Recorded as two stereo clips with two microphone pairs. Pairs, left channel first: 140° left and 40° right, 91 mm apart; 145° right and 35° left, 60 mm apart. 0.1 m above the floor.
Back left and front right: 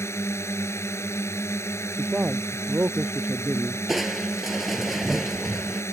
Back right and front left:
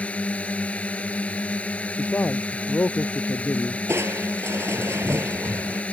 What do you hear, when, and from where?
0.0 s a drone: 165° left
2.0 s a man speaking: 110° right
3.9 s crushing: 45° left